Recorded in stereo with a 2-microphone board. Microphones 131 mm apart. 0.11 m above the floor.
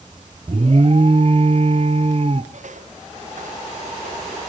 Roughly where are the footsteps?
Right.